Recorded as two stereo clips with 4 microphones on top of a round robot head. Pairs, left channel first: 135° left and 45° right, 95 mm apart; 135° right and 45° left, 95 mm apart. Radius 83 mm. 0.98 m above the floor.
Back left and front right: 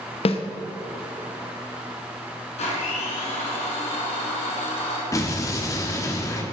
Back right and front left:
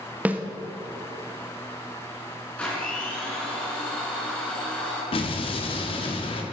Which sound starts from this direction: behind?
An explosion, at 5.1 s.